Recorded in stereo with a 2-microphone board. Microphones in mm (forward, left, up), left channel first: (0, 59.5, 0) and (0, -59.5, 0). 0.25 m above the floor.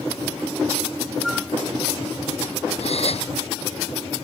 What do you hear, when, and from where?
1.2 s a flute: centre (ahead or behind)
2.8 s a gasp: 60° left (ahead or behind)